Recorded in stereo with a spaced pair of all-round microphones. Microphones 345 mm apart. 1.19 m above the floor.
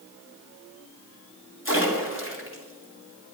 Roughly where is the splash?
Left.